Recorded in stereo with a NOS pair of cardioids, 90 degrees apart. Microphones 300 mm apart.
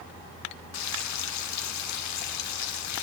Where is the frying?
65° left, 1.3 m.